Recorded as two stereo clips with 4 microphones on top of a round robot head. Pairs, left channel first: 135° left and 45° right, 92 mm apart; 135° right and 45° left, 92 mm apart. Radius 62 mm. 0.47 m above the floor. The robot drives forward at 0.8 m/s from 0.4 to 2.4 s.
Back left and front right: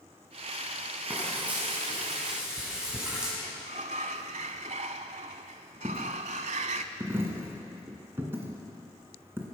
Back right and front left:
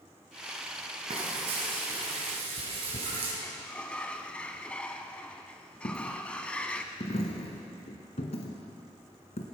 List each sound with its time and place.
1.1 s frying: 25° left, 4.5 m; by 3.3 s 35° left, 3.5 m
3.4 s a sliding door: 55° right, 0.5 m
5.8 s a dropped coin: 115° right, 1.7 m